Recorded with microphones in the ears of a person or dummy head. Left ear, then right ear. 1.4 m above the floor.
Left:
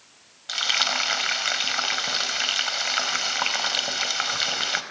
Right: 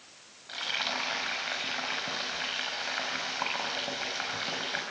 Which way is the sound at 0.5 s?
70° left (ahead or behind).